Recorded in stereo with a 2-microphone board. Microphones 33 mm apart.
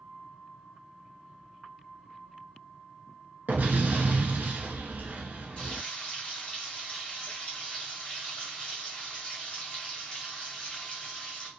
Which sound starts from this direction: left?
Frying, at 5.6 s.